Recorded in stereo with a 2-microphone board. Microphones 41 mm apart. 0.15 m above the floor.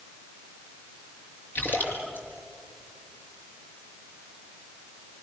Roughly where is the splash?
Left.